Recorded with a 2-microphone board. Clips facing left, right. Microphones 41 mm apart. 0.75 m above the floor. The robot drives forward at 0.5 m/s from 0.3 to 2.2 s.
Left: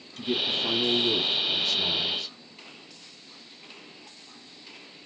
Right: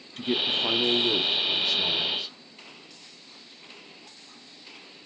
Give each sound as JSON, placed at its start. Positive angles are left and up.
{"t": 0.2, "sound": "a man speaking", "side_deg": -40, "distance_m": 0.9}